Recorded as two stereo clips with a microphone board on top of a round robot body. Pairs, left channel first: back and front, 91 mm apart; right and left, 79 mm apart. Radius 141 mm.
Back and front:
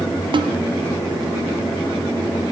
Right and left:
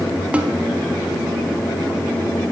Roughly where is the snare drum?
Ahead.